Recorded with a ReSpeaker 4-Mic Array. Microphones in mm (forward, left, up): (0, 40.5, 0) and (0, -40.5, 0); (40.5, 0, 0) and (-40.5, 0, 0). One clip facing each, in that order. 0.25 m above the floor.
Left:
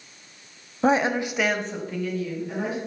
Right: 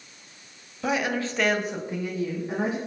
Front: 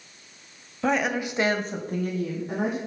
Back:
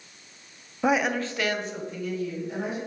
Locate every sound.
0.8 s a woman speaking: 110° left, 1.2 m; by 2.8 s 30° right, 2.5 m